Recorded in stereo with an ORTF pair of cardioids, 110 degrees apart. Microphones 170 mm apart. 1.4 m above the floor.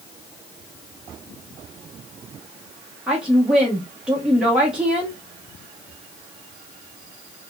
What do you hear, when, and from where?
3.1 s a woman speaking: 5° right, 1.0 m